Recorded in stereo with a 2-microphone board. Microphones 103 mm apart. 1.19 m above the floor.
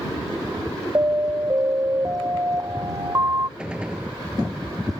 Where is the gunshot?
10° right (ahead or behind).